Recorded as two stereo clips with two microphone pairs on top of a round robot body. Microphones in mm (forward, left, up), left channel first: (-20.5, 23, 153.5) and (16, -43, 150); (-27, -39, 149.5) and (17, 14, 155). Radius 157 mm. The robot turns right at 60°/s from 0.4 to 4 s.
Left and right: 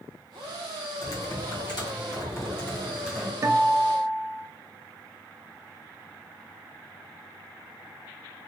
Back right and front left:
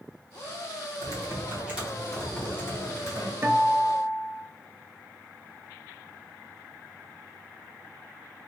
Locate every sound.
1.0 s typing on a keyboard: 80° left, 1.3 m; by 3.3 s 145° right, 1.3 m
3.4 s a guitar: 10° right, 0.5 m; by 4.5 s 25° left, 0.5 m